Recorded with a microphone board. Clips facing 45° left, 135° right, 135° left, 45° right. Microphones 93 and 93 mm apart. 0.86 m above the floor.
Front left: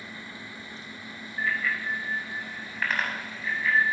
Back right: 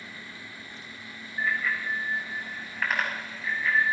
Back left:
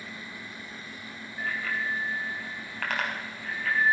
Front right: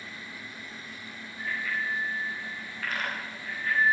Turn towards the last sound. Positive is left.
turn(degrees=135)